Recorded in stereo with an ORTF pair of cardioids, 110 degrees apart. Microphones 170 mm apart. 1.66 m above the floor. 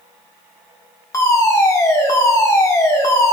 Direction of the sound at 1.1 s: 20° left.